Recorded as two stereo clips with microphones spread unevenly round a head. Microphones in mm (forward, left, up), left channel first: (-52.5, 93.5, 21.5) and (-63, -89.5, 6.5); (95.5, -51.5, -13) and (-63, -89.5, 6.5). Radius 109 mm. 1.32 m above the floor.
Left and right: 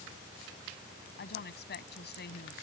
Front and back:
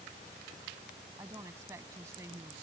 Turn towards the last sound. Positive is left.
turn(degrees=115)